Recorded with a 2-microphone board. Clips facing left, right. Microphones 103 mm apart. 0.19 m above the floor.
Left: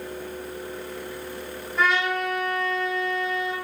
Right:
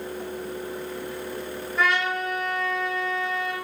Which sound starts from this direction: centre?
A trumpet, at 1.8 s.